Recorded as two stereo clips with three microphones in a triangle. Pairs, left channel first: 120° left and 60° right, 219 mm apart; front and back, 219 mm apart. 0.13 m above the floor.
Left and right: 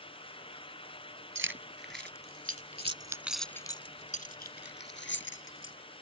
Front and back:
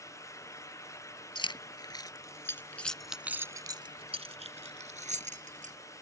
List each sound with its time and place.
1.4 s keys jangling: 65° right; by 5.7 s 125° left